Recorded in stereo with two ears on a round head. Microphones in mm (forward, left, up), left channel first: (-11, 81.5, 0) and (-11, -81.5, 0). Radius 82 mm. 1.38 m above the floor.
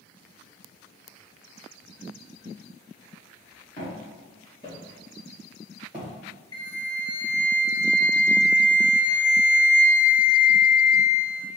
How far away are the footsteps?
About 1.7 m.